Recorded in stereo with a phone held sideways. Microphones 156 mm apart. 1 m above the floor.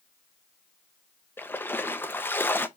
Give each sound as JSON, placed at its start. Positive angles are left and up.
{"t": 1.4, "sound": "a splash", "side_deg": 15, "distance_m": 0.6}